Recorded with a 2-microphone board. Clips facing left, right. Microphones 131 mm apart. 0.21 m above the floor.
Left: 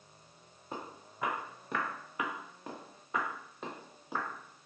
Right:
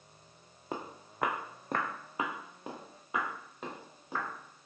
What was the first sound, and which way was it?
Footsteps, 80° right.